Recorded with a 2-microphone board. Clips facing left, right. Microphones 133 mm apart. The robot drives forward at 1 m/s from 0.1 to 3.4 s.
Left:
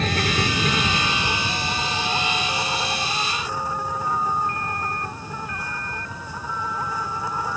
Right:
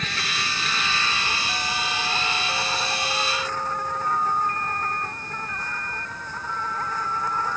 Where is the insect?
45° left (ahead or behind); by 7.6 s 10° left (ahead or behind).